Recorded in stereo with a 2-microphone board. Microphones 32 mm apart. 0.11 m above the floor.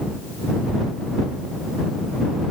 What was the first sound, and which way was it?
Only background noise.